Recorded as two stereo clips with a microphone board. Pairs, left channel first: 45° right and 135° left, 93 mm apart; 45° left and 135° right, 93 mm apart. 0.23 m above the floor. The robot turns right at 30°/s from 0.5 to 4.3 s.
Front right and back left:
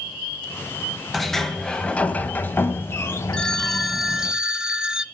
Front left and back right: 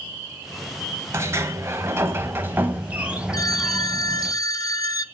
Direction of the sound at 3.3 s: 30° left.